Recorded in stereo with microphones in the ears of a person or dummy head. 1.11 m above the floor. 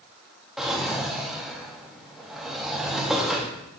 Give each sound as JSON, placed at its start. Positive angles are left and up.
{"t": 0.6, "sound": "a drawer", "side_deg": -5, "distance_m": 0.6}